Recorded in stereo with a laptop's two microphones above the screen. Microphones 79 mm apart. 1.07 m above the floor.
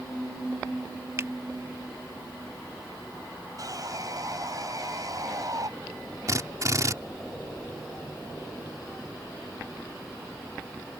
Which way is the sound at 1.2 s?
35° right (ahead or behind).